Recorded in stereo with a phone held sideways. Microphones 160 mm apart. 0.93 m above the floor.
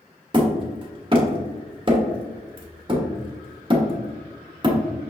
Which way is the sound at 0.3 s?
30° right (ahead or behind).